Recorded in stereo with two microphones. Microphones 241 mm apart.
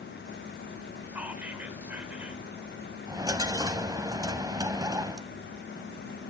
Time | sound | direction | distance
1.1 | whispering | 5° right (ahead or behind) | 1.6 m
3.1 | a dropped coin | 15° right (ahead or behind) | 0.7 m